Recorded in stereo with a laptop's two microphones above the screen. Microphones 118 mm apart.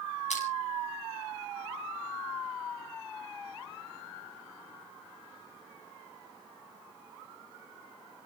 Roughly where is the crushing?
Left.